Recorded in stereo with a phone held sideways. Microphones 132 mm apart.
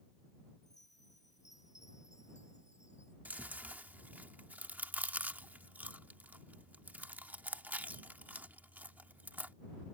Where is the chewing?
15° right (ahead or behind).